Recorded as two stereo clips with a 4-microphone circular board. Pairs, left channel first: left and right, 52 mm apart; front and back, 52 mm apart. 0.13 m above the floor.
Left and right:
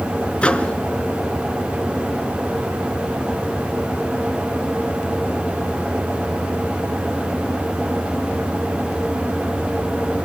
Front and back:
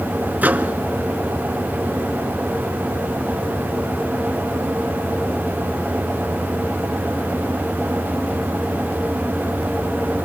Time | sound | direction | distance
0.4 | a microwave | 150° left | 1.1 m